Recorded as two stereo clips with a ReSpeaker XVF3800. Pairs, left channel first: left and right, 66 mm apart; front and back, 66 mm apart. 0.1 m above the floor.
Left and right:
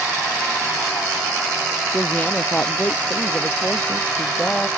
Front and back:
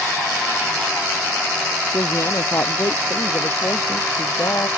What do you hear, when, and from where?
1.9 s a woman speaking: 25° left